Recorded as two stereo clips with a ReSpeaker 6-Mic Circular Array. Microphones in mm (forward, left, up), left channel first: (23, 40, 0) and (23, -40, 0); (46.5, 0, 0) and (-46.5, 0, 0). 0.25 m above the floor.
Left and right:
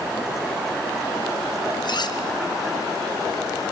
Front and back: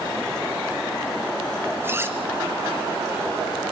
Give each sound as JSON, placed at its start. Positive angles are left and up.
{"t": 1.8, "sound": "cutlery clinking", "azimuth_deg": 115, "distance_m": 2.0}